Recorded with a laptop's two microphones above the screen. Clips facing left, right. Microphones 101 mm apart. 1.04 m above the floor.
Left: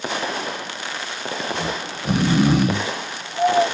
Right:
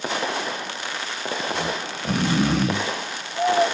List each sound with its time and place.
1.5 s snoring: 10° left (ahead or behind), 0.9 m